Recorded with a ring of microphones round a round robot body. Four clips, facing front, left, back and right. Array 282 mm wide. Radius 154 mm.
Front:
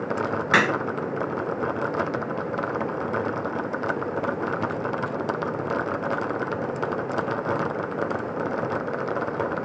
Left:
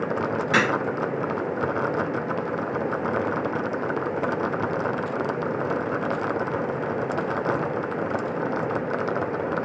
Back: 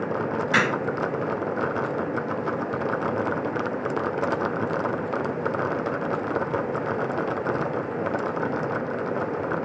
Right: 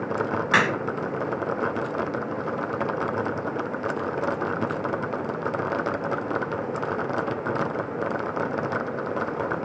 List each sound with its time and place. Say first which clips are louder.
0.5 s a crack: right 1 dB, front 2 dB; 35° right, 1.7 m